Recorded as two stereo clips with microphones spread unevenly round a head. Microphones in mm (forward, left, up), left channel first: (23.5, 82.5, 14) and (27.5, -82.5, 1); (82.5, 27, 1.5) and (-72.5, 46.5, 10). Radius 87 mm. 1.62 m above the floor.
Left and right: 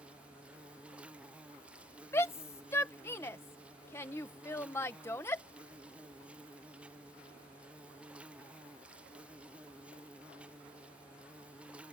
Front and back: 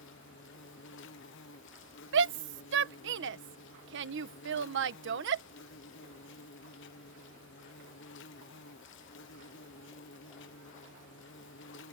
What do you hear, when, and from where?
0.0 s an insect: 5° right
2.1 s a shout: 170° left